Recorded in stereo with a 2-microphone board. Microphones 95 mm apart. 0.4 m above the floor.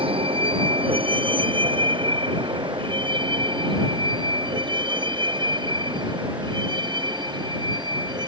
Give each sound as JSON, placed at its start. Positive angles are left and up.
{"t": 0.0, "sound": "a vehicle", "side_deg": -70}